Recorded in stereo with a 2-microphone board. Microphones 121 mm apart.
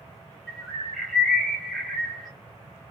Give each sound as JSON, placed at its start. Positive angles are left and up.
{"t": 0.5, "sound": "a bird", "side_deg": 0, "distance_m": 1.4}